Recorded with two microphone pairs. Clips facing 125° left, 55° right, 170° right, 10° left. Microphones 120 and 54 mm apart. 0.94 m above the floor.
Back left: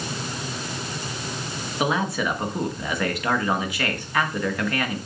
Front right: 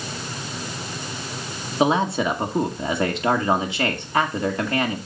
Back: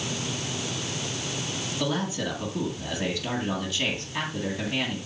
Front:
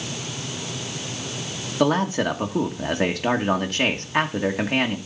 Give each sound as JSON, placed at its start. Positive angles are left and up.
{"t": 1.8, "sound": "a man speaking", "azimuth_deg": 5, "distance_m": 1.5}